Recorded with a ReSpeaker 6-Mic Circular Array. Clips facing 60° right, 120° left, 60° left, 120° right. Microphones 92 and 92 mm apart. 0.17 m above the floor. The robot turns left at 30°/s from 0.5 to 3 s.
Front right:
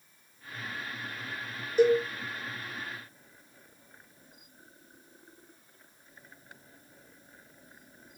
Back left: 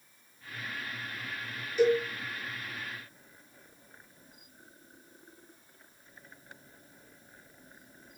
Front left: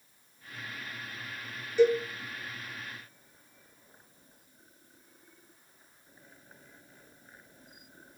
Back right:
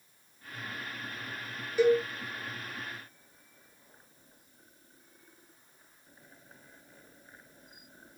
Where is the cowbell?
45° right, 0.8 m; by 2.0 s 55° right, 0.8 m.